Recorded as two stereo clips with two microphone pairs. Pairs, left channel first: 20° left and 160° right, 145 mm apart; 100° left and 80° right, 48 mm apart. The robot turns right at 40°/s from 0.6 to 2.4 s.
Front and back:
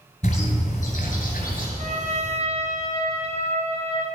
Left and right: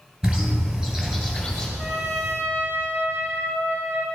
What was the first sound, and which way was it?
A bird, 15° right.